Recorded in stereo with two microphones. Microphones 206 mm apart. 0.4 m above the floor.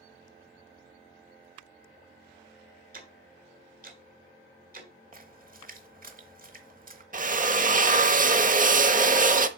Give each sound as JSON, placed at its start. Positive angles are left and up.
{"t": 2.9, "sound": "ticking", "side_deg": -45, "distance_m": 1.8}
{"t": 5.1, "sound": "a splash", "side_deg": -45, "distance_m": 1.1}
{"t": 7.1, "sound": "a drill", "side_deg": -40, "distance_m": 0.6}